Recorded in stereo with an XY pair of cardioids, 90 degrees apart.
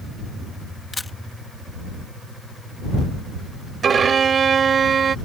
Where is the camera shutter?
20° left.